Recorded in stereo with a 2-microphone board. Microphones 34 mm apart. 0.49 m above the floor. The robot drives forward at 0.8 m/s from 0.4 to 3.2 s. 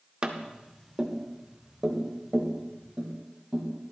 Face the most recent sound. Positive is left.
turn(degrees=-10)  # may be behind; listen again after turning